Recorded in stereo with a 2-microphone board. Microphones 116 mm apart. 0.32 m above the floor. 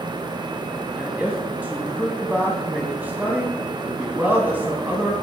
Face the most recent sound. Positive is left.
turn(degrees=-15)  # may be behind; listen again after turning